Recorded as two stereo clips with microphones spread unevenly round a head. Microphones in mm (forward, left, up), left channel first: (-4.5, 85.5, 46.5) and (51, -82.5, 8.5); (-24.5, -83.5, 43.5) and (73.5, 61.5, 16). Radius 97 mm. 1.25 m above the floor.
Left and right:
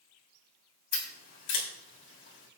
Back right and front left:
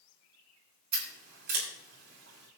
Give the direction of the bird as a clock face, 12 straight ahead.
No bird in this recording.